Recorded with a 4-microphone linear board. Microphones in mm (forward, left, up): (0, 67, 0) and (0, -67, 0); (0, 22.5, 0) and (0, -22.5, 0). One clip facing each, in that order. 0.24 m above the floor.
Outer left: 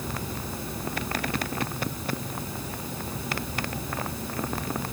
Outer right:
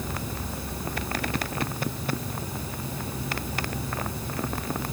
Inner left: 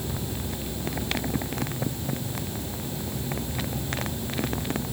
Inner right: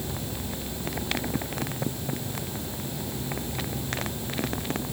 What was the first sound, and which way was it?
Only background noise.